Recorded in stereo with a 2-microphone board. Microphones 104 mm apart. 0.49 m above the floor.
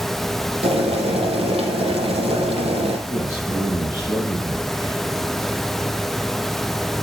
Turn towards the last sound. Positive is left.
turn(degrees=-15)  # may be behind; listen again after turning